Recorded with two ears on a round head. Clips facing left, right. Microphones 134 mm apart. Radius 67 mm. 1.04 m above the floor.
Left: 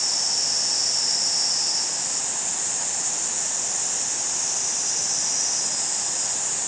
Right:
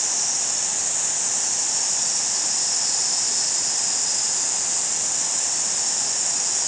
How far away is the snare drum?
No snare drum in this recording.